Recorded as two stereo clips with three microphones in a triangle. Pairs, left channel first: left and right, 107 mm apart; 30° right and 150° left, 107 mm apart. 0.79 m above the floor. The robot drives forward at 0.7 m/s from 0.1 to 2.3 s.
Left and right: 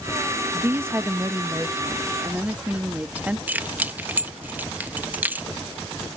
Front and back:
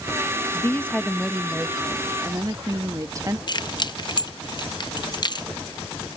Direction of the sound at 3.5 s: 20° right.